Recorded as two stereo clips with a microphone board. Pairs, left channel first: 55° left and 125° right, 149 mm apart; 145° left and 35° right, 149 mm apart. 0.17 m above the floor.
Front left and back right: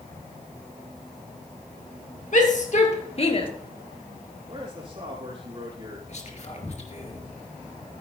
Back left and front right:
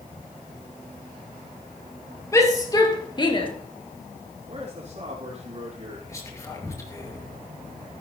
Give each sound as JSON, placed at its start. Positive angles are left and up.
{"t": 2.3, "sound": "a shout", "azimuth_deg": 80, "distance_m": 2.5}
{"t": 4.5, "sound": "a man speaking", "azimuth_deg": -75, "distance_m": 3.5}
{"t": 6.1, "sound": "whispering", "azimuth_deg": 80, "distance_m": 2.5}